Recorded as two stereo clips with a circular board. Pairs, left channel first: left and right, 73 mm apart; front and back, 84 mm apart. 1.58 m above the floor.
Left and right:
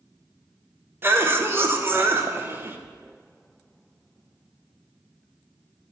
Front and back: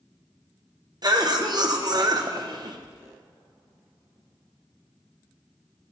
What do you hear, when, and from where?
1.0 s a cough: 145° right, 1.0 m